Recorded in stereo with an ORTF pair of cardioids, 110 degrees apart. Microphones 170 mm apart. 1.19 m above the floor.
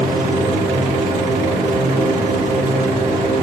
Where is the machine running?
45° right, 3 m.